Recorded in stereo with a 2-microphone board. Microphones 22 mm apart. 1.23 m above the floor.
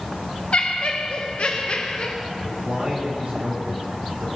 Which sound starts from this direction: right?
A man speaking, at 2.4 s.